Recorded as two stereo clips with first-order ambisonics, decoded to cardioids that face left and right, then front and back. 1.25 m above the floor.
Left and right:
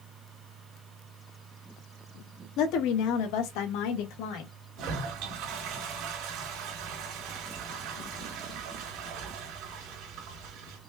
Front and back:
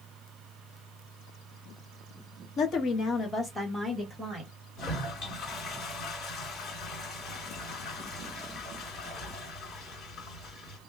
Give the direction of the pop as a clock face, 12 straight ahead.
I don't hear a pop.